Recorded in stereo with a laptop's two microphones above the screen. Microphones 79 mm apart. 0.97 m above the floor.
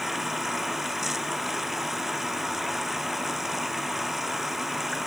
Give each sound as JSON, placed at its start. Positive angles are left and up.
{"t": 0.0, "sound": "running water", "side_deg": 0}